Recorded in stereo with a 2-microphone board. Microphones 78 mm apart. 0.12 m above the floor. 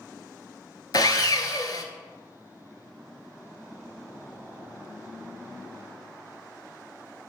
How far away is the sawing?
About 0.5 m.